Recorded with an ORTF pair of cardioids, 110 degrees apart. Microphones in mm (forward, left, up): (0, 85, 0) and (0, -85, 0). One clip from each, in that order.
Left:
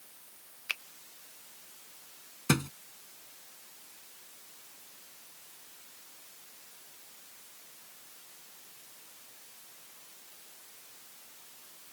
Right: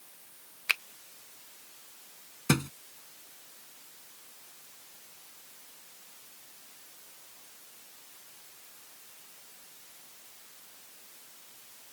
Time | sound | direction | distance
0.7 | a finger snap | 35° right | ?
2.5 | a thud | straight ahead | ?